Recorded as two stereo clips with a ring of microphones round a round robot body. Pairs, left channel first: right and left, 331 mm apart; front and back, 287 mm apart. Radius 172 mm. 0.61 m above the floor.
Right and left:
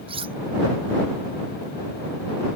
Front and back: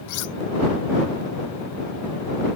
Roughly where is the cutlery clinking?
Ahead.